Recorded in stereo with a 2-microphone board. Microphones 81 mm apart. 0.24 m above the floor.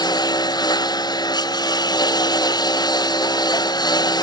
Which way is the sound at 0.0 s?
55° left (ahead or behind).